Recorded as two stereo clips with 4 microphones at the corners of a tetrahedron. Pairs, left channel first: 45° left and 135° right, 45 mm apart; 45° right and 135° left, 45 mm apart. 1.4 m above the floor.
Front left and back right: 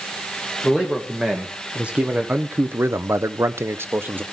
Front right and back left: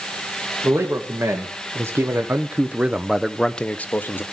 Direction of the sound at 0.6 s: 145° left.